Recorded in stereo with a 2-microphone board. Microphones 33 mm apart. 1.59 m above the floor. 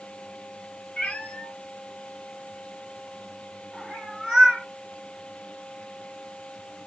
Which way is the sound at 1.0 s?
45° left (ahead or behind).